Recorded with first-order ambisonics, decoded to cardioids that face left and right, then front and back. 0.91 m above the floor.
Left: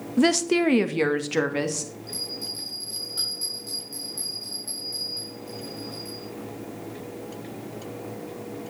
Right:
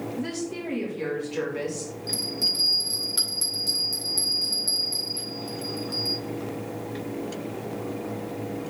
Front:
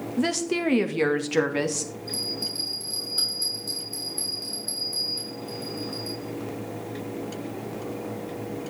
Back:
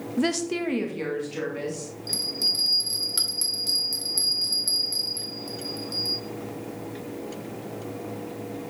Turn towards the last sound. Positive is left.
turn(degrees=-150)